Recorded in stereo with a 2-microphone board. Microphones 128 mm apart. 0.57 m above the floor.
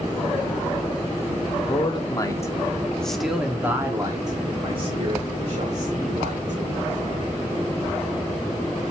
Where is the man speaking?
40° left (ahead or behind), 1.5 m; by 6.6 s 60° right (ahead or behind), 2.5 m.